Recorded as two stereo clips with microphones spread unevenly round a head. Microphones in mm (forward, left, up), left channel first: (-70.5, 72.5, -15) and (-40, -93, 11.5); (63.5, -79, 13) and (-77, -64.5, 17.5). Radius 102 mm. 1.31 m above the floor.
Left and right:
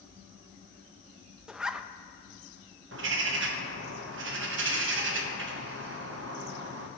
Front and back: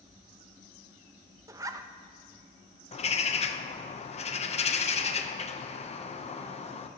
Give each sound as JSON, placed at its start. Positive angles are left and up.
{"t": 1.5, "sound": "a zipper", "azimuth_deg": -145, "distance_m": 0.5}
{"t": 2.9, "sound": "a bird", "azimuth_deg": -50, "distance_m": 0.9}